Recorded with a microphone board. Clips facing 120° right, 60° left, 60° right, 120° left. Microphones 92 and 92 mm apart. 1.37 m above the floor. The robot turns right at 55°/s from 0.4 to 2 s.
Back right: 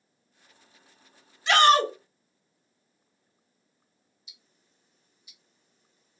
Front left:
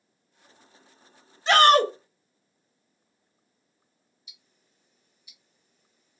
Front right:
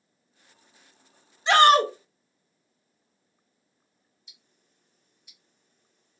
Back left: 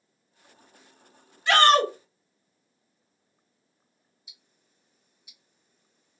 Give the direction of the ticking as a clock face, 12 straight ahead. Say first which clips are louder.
Even, back left 1 dB; 6 o'clock.